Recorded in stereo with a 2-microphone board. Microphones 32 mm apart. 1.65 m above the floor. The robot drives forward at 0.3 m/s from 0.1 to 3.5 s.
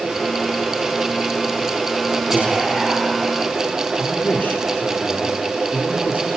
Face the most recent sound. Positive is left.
turn(degrees=70)  # may be behind; listen again after turning